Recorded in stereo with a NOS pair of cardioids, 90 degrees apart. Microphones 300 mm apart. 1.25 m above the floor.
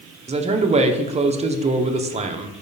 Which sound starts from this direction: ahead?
A man speaking, at 0.3 s.